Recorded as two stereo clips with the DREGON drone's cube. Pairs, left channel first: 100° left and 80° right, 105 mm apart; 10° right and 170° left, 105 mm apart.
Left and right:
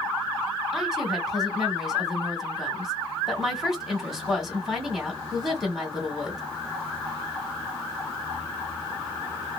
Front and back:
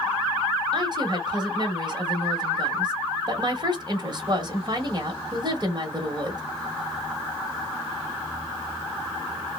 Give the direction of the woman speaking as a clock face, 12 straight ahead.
6 o'clock.